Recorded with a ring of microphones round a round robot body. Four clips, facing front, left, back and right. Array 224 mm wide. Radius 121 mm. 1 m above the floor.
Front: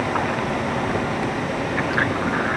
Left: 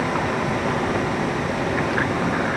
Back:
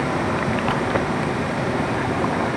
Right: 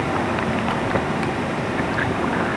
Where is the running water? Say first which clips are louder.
Right 1 dB, back 1 dB; 135° right, 8.5 m.